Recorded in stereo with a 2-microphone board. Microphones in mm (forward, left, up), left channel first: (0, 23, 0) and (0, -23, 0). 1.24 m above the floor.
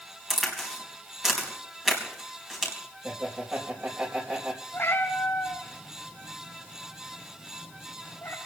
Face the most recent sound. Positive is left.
turn(degrees=60)  # may be behind; listen again after turning